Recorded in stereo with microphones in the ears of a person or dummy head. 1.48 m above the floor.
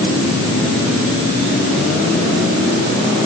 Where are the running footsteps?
No running footsteps in this recording.